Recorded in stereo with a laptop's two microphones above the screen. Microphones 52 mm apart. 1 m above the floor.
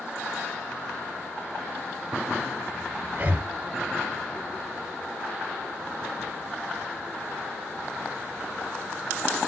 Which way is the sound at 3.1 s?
30° right (ahead or behind).